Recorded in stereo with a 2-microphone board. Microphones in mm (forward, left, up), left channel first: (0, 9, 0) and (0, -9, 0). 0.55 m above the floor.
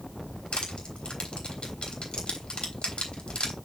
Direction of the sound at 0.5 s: 75° left (ahead or behind).